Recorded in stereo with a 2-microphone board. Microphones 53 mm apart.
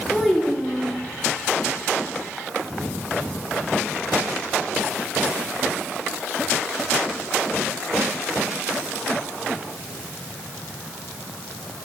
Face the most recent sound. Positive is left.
turn(degrees=5)  # may be behind; listen again after turning